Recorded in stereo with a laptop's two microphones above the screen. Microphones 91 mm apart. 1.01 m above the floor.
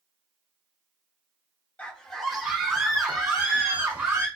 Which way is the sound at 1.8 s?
15° left (ahead or behind).